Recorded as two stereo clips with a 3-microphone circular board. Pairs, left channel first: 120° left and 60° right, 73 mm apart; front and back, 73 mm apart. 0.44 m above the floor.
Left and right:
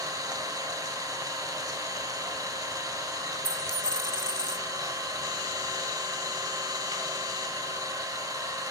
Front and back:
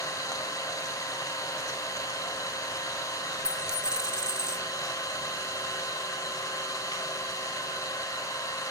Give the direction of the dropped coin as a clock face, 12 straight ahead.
9 o'clock.